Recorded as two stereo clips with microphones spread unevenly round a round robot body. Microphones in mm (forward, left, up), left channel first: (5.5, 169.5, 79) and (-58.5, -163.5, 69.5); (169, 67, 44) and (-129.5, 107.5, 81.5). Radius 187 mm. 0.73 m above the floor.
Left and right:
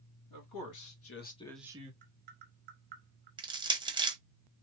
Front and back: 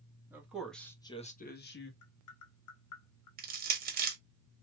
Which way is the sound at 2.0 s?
40° right.